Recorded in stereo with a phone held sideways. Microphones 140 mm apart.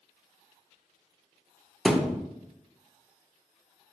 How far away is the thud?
About 0.6 m.